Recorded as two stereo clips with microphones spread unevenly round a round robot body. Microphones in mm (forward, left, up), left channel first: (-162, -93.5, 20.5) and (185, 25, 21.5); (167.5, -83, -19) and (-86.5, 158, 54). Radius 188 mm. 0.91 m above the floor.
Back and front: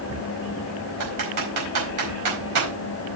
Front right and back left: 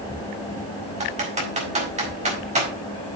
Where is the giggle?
I don't hear a giggle.